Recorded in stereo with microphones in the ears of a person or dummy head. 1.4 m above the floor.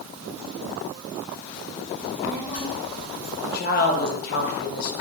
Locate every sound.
2.0 s a child speaking: 30° left (ahead or behind), 1.8 m; by 3.3 s 55° left (ahead or behind), 2 m
3.4 s a woman speaking: 55° left (ahead or behind), 0.7 m